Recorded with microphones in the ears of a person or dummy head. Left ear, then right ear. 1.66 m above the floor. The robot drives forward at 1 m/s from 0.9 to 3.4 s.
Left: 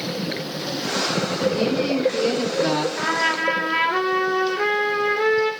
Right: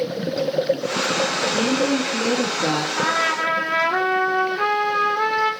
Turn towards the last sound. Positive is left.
turn(degrees=-40)  # may be behind; listen again after turning